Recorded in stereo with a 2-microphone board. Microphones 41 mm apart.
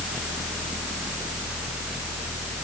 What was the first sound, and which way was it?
Only background noise.